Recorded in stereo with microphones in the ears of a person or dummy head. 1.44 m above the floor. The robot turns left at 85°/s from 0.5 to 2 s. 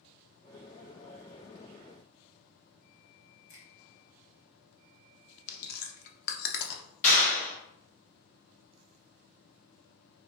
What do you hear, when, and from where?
3.5 s a finger snap: 45° left (ahead or behind), 1.1 m
5.5 s chewing: 55° left (ahead or behind), 0.5 m
7.0 s a clap: 40° left (ahead or behind), 1.1 m